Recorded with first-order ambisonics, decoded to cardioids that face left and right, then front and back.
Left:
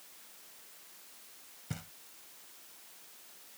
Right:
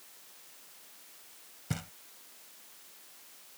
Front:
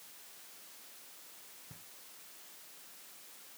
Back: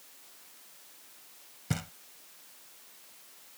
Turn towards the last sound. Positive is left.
turn(degrees=-160)